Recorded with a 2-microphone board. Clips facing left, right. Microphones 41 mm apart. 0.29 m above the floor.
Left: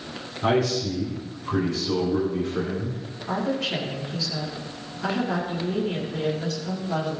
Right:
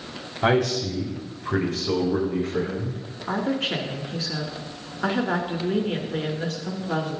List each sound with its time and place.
0.4 s a man speaking: 70° right (ahead or behind), 4.5 m; by 3.0 s 75° right (ahead or behind), 6 m
3.3 s a woman speaking: 45° right (ahead or behind), 3.5 m